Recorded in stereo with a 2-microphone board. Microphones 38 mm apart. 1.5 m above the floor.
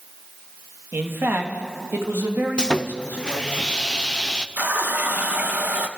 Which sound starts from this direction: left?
Sawing, at 2.6 s.